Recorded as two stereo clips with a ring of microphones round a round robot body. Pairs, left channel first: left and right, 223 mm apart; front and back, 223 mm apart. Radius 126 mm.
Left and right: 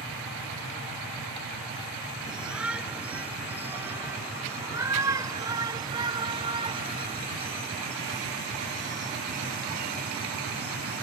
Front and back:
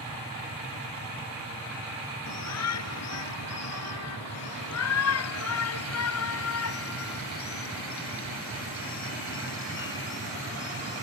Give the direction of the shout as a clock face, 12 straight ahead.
12 o'clock.